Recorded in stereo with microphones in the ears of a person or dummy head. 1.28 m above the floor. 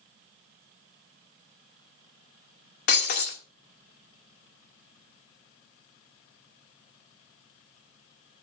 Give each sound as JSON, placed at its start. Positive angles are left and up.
{"t": 2.9, "sound": "breaking glass", "side_deg": 50, "distance_m": 1.4}